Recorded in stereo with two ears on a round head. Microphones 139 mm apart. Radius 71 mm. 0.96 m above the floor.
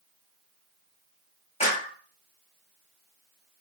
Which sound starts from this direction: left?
A clap, at 1.6 s.